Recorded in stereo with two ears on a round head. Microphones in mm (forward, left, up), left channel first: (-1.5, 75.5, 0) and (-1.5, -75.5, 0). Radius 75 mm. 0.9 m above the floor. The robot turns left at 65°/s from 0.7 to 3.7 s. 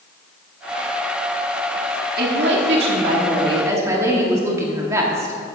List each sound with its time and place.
2.2 s a woman speaking: 65° right, 1.9 m; by 5.3 s 160° right, 1.9 m